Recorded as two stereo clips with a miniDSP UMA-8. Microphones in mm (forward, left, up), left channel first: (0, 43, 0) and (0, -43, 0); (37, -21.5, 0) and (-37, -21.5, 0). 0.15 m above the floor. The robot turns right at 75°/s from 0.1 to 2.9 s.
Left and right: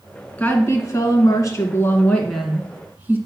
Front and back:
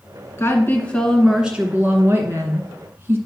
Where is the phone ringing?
No phone ringing in this recording.